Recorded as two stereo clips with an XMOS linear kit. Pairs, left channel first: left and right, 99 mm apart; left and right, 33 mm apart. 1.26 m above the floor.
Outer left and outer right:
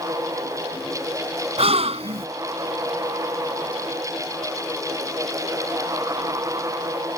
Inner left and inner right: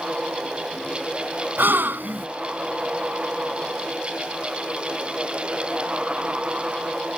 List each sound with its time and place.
1.6 s a gasp: 75° right (ahead or behind)